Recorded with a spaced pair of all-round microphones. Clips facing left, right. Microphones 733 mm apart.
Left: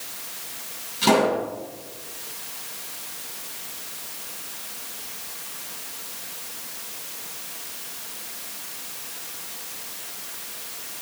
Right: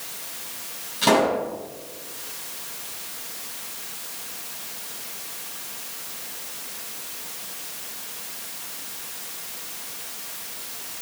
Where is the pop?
15° right (ahead or behind), 6 m.